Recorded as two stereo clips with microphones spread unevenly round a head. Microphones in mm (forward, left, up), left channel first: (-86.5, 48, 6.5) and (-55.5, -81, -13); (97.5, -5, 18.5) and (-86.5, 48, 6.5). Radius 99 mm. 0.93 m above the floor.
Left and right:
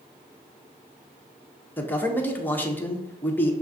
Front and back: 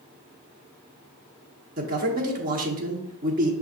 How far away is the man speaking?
About 0.9 m.